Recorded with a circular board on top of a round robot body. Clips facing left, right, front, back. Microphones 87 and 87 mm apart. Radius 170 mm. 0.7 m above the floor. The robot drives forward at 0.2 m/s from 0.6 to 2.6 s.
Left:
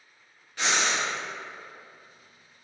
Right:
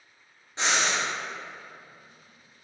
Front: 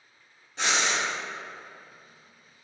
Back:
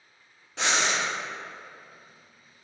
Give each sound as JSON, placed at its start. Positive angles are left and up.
{"t": 0.6, "sound": "breathing", "azimuth_deg": -155, "distance_m": 0.6}